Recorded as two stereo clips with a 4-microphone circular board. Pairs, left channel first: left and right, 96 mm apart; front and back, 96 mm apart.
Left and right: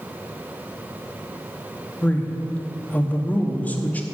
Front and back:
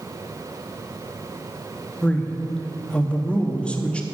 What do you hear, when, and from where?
2.0 s a man speaking: 55° left, 0.7 m